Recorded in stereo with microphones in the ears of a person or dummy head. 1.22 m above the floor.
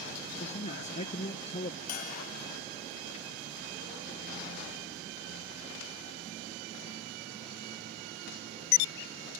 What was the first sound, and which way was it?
A man speaking, 40° left (ahead or behind).